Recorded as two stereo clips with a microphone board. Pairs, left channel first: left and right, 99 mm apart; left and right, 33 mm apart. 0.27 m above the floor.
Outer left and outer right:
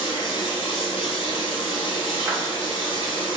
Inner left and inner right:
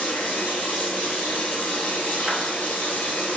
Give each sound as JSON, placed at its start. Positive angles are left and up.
{"t": 0.0, "sound": "running water", "side_deg": 75, "distance_m": 0.8}
{"t": 2.2, "sound": "a clap", "side_deg": -30, "distance_m": 1.1}